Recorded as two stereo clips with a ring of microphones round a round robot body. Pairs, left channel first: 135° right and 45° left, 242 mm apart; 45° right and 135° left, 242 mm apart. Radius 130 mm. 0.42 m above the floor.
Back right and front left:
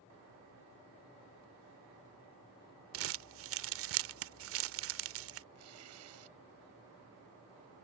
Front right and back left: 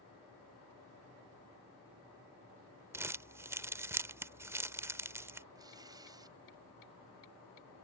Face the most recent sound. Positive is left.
turn(degrees=60)